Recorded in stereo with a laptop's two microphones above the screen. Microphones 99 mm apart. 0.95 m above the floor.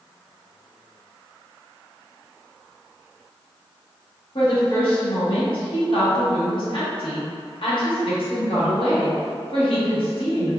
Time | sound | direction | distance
4.3 | a woman speaking | 60° left (ahead or behind) | 1.2 m